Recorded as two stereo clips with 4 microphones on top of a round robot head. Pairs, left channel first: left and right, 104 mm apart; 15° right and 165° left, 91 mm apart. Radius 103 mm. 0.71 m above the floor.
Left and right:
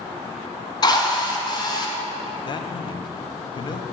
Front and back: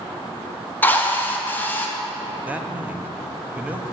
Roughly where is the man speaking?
Left.